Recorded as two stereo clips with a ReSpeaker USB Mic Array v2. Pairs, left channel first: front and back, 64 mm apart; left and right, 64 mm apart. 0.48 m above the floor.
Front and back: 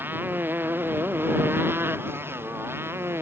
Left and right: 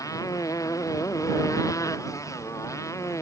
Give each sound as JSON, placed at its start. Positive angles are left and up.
{"t": 0.0, "sound": "a motorcycle", "azimuth_deg": 120}